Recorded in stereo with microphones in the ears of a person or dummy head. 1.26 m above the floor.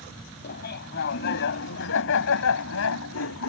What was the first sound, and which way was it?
Laughter, 55° left (ahead or behind).